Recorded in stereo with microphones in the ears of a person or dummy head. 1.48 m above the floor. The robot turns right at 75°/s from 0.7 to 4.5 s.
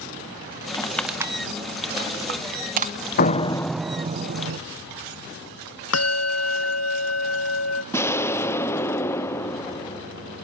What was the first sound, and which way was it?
Crushing, 25° left (ahead or behind).